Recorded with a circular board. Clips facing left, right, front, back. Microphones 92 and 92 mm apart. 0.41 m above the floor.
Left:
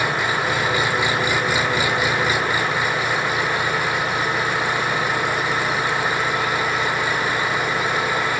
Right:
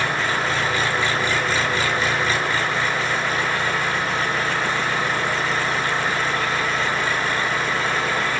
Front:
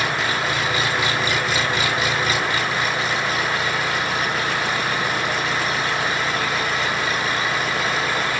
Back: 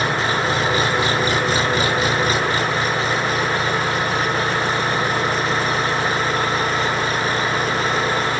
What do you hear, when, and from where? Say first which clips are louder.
0.0 s an engine running: left 1 dB, back 3 dB; 155° left, 1.2 m